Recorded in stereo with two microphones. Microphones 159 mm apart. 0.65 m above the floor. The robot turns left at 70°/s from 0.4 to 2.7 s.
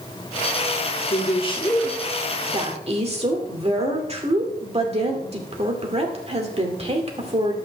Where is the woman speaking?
65° left, 2 m; by 7.6 s 45° right, 2 m.